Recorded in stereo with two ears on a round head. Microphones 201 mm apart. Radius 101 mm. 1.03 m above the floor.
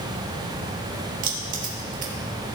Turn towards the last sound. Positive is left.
turn(degrees=-40)  # may be behind; listen again after turning